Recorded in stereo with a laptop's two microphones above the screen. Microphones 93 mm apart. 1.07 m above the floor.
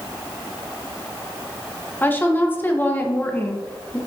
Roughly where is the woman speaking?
Left.